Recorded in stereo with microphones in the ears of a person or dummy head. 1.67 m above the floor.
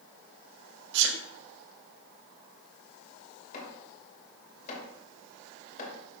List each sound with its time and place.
0.9 s a sneeze: 70° right (ahead or behind), 1.1 m
3.5 s chopping: 50° left (ahead or behind), 2.5 m